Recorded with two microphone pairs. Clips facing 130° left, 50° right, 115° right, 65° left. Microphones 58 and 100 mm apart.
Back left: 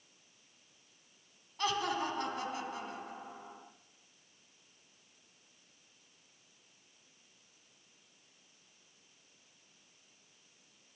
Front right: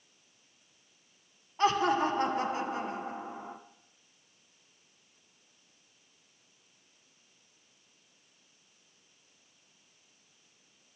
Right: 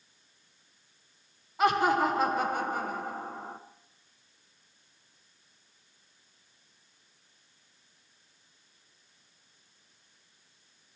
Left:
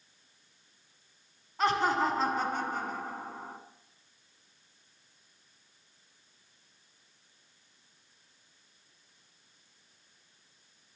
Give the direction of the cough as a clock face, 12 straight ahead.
I don't hear a cough.